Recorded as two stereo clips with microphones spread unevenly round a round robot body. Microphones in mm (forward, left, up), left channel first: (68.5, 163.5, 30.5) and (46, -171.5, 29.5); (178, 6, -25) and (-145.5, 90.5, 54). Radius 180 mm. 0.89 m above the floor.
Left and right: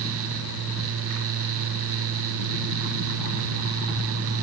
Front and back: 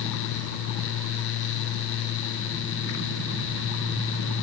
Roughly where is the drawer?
I don't hear a drawer.